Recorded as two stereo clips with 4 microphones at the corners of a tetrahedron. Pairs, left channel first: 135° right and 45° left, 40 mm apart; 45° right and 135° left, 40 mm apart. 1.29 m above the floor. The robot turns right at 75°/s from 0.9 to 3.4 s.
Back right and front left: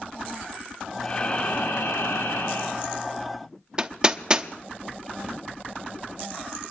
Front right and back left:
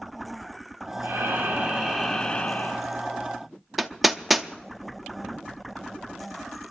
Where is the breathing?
150° left, 2.5 m; by 2.8 s 75° right, 2.5 m.